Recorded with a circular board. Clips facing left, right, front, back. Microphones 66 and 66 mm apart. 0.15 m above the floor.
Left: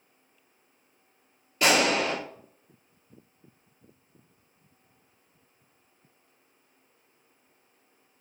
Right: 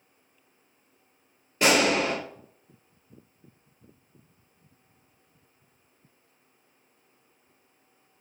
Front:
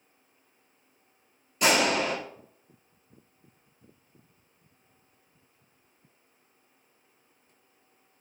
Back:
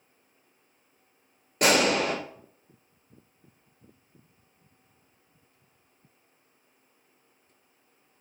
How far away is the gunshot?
About 1.3 m.